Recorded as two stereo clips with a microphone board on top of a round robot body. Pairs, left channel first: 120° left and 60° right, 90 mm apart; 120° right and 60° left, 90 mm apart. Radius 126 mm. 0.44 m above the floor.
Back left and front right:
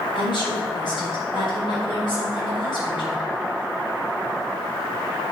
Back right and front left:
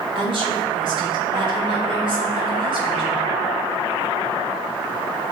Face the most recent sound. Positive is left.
turn(degrees=85)